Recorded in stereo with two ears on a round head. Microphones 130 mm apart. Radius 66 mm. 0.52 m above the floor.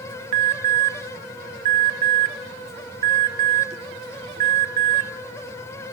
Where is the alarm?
45° right (ahead or behind), 0.8 m.